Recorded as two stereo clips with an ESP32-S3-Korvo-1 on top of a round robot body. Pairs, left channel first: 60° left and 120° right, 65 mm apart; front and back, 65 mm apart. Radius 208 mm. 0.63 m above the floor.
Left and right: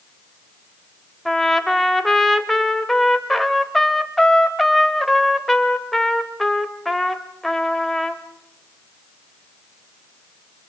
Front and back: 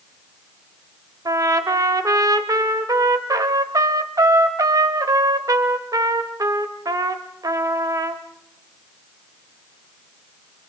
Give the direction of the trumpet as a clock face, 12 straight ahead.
7 o'clock.